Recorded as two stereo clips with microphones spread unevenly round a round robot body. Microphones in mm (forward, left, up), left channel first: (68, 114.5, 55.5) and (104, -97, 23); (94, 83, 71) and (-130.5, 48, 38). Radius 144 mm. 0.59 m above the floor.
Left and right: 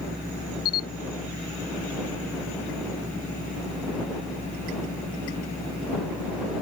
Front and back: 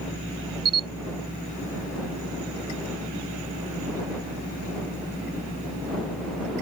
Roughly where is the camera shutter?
Behind left.